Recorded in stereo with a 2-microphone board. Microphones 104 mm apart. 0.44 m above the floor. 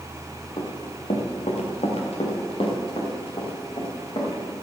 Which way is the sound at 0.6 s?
65° left (ahead or behind).